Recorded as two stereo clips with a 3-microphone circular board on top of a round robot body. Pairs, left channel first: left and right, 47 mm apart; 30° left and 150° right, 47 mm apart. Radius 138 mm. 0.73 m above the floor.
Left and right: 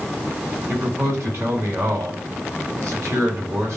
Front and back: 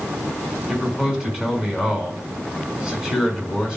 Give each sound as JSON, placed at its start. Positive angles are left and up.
{"t": 0.7, "sound": "a man speaking", "azimuth_deg": -70, "distance_m": 7.0}